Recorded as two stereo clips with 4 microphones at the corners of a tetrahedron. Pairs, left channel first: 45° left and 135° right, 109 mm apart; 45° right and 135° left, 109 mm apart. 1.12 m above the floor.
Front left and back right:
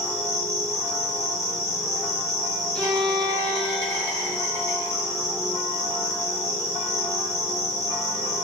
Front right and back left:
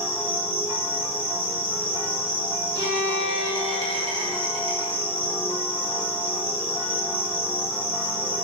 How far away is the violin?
About 0.9 m.